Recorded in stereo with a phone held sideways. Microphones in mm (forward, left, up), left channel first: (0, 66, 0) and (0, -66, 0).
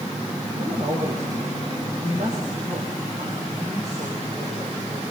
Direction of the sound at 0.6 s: 60° right (ahead or behind).